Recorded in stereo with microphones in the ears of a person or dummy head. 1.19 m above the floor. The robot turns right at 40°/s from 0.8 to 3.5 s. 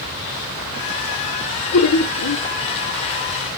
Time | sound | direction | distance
1.7 | laughter | 80° left | 1.2 m